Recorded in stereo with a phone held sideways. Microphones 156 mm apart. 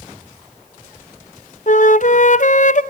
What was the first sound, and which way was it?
A flute, 55° left (ahead or behind).